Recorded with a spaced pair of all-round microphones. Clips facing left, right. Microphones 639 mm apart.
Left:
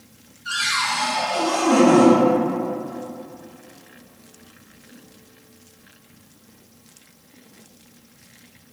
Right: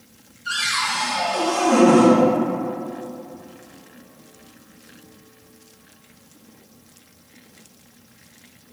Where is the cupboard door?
10° left (ahead or behind), 1.9 m.